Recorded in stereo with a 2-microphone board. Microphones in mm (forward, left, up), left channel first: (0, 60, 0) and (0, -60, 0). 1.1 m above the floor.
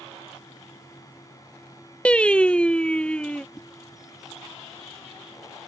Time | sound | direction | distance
2.0 | singing | 10° left (ahead or behind) | ?
3.5 | a whoosh | 15° left (ahead or behind) | ?